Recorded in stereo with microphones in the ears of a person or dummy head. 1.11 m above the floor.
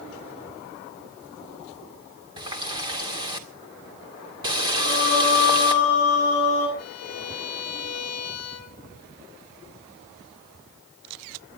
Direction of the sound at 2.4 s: 25° right (ahead or behind).